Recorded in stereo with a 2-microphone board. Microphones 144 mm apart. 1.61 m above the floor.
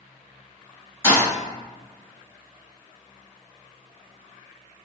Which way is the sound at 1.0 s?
25° left (ahead or behind).